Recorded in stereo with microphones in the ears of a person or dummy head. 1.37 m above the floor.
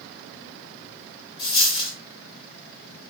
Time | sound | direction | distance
1.4 | a dropped coin | 30° left (ahead or behind) | 1.9 m